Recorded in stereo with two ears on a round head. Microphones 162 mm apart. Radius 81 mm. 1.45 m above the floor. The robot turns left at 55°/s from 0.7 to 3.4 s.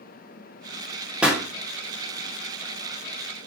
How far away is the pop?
About 0.6 m.